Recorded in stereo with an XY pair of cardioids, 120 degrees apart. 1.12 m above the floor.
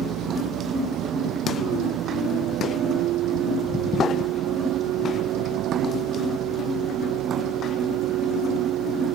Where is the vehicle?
65° right; by 9.2 s 75° right.